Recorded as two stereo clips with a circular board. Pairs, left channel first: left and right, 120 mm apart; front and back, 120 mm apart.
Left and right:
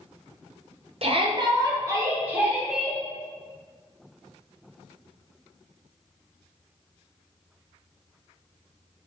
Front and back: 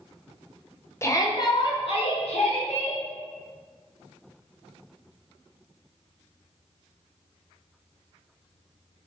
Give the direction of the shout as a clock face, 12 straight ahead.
2 o'clock.